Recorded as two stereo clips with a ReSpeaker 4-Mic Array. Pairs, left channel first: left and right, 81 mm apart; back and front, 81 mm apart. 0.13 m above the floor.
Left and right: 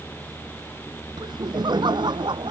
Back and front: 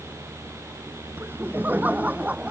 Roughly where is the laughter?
Ahead right.